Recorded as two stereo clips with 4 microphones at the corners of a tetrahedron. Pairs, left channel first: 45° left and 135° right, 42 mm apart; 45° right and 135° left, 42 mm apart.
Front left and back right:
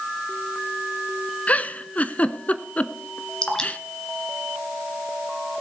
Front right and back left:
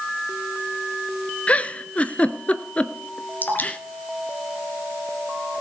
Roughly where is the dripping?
Ahead.